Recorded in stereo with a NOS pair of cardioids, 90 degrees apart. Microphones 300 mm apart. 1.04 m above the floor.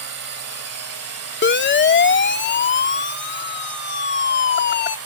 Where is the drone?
65° right; by 5.1 s 60° right.